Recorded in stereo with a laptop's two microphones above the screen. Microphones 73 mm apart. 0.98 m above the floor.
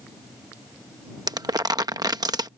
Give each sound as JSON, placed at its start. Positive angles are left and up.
{"t": 1.3, "sound": "crumpling", "side_deg": -65}